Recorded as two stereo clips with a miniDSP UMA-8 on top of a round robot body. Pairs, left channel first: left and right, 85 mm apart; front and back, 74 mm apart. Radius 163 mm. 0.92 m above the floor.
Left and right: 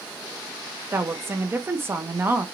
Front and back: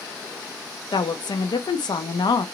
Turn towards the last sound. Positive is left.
turn(degrees=-25)